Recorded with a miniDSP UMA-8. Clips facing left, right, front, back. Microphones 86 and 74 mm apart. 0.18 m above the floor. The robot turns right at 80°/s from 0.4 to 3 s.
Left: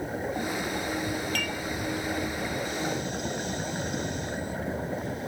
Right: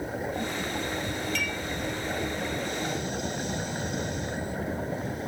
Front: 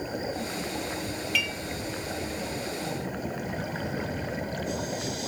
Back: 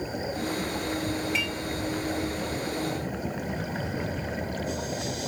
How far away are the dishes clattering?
About 2.5 m.